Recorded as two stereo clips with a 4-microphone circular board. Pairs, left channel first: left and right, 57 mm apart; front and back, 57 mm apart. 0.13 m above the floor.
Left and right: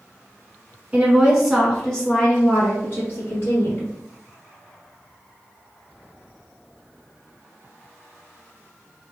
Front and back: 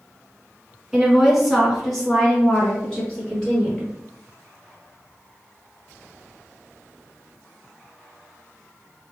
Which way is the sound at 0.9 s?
110° right.